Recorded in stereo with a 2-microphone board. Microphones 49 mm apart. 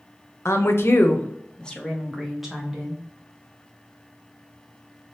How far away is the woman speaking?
About 0.6 m.